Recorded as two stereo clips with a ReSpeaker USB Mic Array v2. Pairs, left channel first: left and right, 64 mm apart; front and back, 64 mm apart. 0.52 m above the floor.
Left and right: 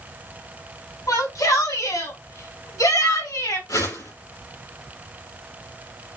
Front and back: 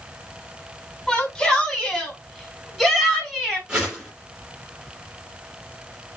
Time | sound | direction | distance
1.1 | a shout | 80° left | 4.5 m
3.7 | a whoosh | 105° left | 7 m